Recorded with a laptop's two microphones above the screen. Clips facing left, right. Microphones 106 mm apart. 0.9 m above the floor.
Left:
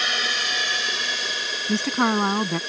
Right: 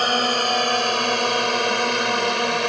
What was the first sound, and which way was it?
A drone, 45° right (ahead or behind).